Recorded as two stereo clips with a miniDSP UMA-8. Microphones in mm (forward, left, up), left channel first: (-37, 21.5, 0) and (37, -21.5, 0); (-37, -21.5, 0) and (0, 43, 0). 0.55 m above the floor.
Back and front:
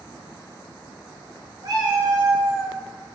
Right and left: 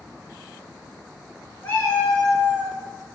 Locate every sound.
1.6 s a cat meowing: 55° right, 0.9 m; by 2.8 s 25° left, 0.5 m